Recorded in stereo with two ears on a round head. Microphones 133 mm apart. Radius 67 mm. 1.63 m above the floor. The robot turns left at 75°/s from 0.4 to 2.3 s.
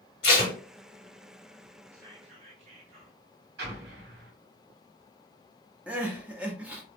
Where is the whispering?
15° right (ahead or behind), 1.2 m; by 3.2 s 40° right (ahead or behind), 1.2 m.